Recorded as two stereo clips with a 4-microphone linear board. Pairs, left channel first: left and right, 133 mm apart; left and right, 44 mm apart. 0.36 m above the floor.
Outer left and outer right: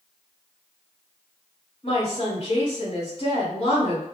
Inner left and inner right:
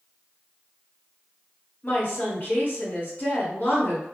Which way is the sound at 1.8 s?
40° left (ahead or behind).